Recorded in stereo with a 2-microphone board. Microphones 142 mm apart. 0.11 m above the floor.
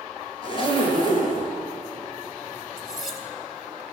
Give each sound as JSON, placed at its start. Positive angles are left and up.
{"t": 0.4, "sound": "a zipper", "side_deg": 35, "distance_m": 1.8}
{"t": 2.8, "sound": "cutlery clinking", "side_deg": -5, "distance_m": 1.3}